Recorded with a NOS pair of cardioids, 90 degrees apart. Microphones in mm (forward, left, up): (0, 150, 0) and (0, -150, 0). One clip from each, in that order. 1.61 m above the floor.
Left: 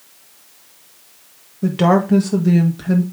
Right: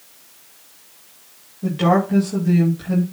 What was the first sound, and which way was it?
A woman speaking, 50° left.